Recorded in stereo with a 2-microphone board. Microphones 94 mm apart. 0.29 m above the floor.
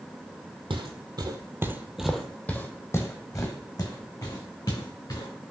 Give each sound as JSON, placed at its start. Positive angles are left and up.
{"t": 0.7, "sound": "footsteps", "side_deg": -65, "distance_m": 0.7}